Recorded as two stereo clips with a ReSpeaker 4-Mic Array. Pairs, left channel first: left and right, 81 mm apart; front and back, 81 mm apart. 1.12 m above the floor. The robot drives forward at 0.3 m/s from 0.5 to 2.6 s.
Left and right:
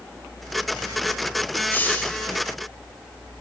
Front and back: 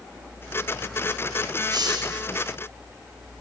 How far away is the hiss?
About 5.5 m.